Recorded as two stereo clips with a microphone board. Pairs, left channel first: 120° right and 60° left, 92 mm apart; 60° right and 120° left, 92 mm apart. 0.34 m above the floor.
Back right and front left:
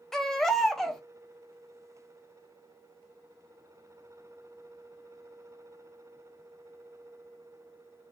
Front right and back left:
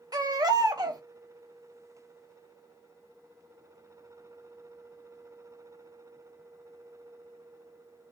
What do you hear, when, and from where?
0.1 s a baby crying: 155° left, 0.5 m